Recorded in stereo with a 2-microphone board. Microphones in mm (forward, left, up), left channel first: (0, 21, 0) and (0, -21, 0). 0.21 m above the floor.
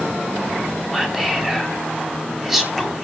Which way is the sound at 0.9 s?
10° right (ahead or behind).